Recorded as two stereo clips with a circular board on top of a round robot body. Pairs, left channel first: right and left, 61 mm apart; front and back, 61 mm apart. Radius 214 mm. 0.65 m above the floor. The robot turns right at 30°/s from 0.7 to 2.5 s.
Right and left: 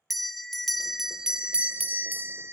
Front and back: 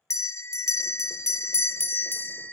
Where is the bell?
Straight ahead, 0.5 m; by 2.5 s 55° left, 0.5 m.